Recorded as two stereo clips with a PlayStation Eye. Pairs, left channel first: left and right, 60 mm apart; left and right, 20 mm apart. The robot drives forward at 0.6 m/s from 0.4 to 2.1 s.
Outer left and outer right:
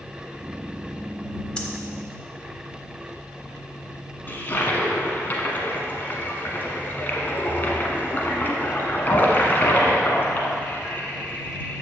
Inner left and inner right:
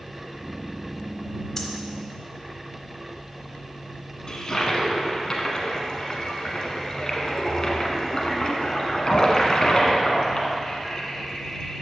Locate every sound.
1.6 s breathing: 15° left (ahead or behind), 1.0 m
4.3 s a toilet flushing: 35° left (ahead or behind), 1.2 m